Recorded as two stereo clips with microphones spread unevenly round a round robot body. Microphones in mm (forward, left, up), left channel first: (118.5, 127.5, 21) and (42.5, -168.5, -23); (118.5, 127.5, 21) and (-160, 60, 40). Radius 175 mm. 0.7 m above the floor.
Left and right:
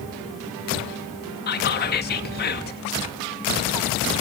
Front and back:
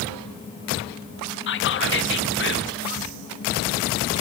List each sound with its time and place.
1.5 s whispering: 20° left, 0.7 m